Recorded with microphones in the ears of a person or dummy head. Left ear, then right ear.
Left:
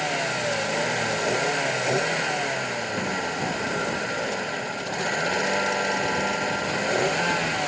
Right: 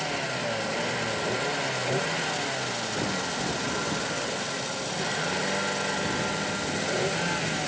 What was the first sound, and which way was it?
A vehicle, 25° left (ahead or behind).